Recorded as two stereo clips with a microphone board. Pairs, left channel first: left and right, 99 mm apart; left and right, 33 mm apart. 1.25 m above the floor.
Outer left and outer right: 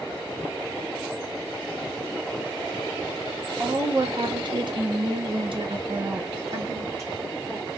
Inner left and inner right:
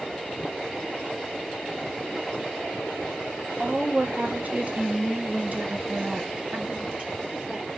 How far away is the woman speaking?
About 1.1 m.